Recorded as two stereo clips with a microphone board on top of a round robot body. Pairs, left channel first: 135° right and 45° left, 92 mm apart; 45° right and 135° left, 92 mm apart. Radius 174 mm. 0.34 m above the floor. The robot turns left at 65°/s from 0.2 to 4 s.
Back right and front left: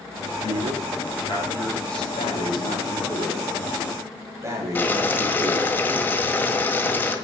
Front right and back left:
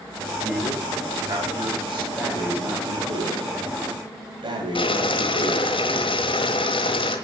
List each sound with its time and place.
0.4 s a man speaking: 115° right, 4.5 m; by 2.0 s 140° left, 4.5 m
2.1 s breathing: 135° right, 3 m; by 5.8 s 105° left, 3 m
4.8 s boiling: 65° right, 1.5 m